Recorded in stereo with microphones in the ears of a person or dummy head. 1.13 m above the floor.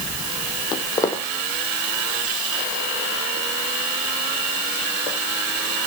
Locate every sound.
0.7 s footsteps: 25° left (ahead or behind), 2 m; by 5.2 s 30° right (ahead or behind), 4 m